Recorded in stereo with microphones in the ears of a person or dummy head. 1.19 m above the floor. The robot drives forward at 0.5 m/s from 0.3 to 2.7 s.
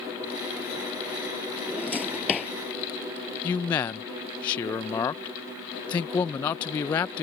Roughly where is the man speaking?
Left.